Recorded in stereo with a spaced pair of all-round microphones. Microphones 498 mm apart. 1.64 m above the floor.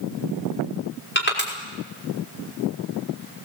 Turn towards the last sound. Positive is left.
turn(degrees=20)  # may be behind; listen again after turning